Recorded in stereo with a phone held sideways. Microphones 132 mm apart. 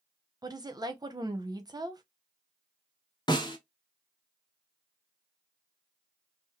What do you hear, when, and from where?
0.4 s a woman speaking: 30° right (ahead or behind), 0.6 m
3.3 s a snare drum: 35° left (ahead or behind), 0.7 m